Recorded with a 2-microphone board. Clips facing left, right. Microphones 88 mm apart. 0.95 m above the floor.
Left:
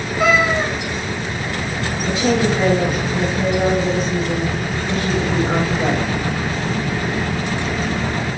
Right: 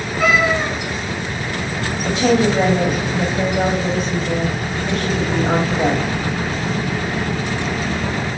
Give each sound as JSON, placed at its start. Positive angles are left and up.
{"t": 0.2, "sound": "a cat meowing", "side_deg": 20, "distance_m": 1.7}
{"t": 2.0, "sound": "a woman speaking", "side_deg": -80, "distance_m": 2.0}